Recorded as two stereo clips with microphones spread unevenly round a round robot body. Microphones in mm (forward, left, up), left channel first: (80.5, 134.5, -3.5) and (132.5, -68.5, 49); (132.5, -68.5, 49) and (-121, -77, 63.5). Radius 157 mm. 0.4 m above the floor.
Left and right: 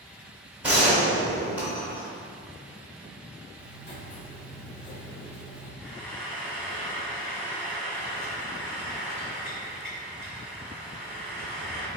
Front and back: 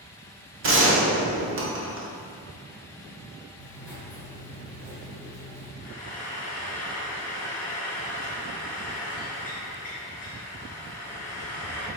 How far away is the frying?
About 1.8 m.